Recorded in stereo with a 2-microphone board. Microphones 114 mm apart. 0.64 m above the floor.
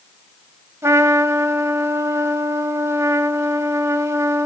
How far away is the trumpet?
About 1.6 m.